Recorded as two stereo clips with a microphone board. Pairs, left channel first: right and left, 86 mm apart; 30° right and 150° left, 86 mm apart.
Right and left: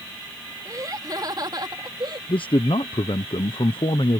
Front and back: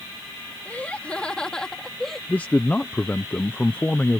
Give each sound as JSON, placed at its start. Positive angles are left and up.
{"t": 0.7, "sound": "laughter", "azimuth_deg": 45}
{"t": 2.3, "sound": "a man speaking", "azimuth_deg": -100}